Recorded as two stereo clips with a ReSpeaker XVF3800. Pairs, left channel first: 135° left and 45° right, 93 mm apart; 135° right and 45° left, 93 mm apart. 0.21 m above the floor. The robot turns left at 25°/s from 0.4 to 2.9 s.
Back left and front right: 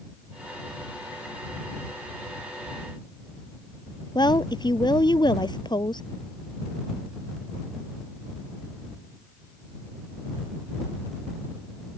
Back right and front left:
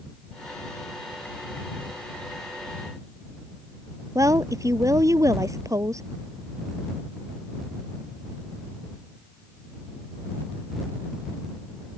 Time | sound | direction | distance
4.2 | a woman speaking | 100° left | ?